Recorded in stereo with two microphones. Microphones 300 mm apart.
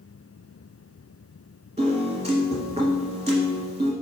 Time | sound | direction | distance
1.8 | a piano | 15° right (ahead or behind) | 1.2 m